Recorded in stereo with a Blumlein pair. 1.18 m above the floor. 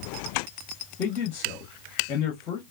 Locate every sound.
1.0 s a man speaking: 35° left, 1.6 m